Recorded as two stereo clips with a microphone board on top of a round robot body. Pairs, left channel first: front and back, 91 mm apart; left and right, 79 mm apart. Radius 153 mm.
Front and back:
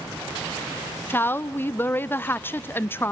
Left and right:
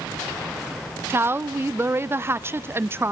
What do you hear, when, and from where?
1.1 s a woman speaking: 55° right, 0.7 m